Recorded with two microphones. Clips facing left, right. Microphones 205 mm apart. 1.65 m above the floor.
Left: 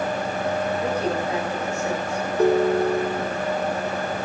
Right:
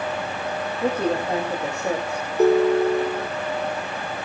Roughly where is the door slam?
I don't hear a door slam.